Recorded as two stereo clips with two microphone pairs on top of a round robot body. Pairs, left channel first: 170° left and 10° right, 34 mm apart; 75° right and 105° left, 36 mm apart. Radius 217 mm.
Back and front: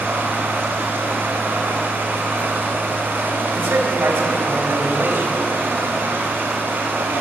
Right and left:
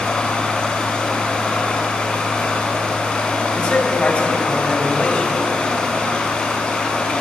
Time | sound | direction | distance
0.0 | running water | 10° right | 6.5 m
3.5 | a man speaking | 15° right | 5 m